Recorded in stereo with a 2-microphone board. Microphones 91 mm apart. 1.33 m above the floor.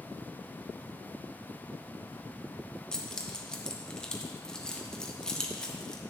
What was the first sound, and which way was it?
Keys jangling, 5° left (ahead or behind).